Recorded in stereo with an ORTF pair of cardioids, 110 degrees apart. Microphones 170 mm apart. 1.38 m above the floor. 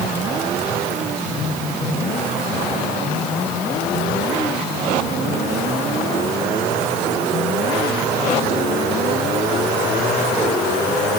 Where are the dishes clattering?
I don't hear dishes clattering.